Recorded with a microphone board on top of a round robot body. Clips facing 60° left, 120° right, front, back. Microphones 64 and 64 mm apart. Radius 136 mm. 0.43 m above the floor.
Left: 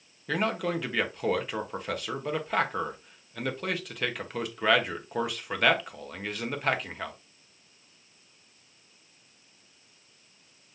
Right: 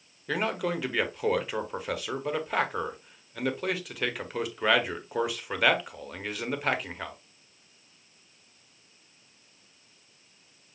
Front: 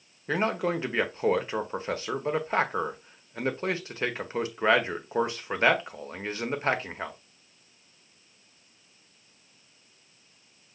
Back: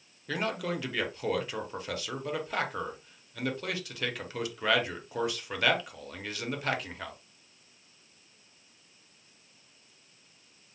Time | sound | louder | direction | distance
0.3 | a man speaking | left 1 dB, front 5 dB | 35° right | 0.9 m